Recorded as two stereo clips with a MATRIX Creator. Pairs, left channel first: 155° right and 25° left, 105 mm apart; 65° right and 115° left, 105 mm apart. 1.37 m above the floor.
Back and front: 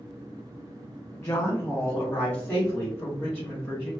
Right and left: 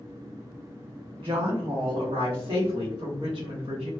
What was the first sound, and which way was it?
A woman speaking, 140° left.